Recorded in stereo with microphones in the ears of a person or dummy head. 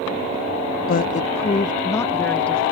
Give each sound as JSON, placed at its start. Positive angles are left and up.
{"t": 0.9, "sound": "a woman speaking", "side_deg": 50}